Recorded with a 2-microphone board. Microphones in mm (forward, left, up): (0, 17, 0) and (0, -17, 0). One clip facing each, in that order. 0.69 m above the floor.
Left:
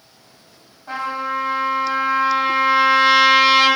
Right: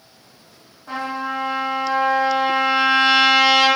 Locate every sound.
0.9 s a trumpet: 15° left (ahead or behind), 1.7 m